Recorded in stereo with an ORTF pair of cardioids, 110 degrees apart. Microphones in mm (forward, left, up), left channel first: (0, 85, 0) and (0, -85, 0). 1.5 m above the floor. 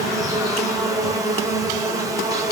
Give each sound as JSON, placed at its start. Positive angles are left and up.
{"t": 0.0, "sound": "an insect", "azimuth_deg": -20, "distance_m": 1.0}